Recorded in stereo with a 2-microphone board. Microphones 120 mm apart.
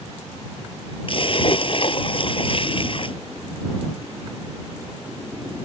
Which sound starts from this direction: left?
A splash, at 1.1 s.